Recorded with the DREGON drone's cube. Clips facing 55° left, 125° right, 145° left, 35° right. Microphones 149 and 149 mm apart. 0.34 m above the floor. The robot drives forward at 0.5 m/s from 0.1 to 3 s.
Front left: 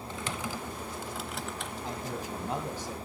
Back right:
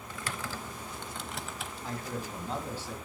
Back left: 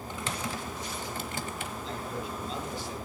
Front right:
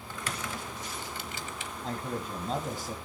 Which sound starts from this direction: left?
Typing on a keyboard, at 0.1 s.